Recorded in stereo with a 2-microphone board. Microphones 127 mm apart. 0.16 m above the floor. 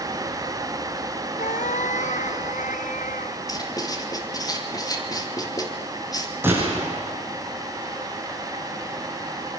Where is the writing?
30° left (ahead or behind), 2.5 m.